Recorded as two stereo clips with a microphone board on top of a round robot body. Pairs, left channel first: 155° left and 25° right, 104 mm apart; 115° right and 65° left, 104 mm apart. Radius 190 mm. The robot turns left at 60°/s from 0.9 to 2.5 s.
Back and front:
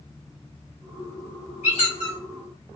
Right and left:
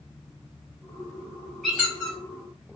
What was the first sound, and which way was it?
A squeak, 160° left.